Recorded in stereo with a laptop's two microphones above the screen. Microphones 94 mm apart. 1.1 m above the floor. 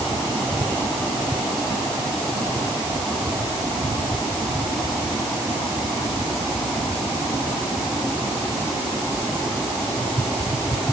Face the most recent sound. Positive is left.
No sound to turn to.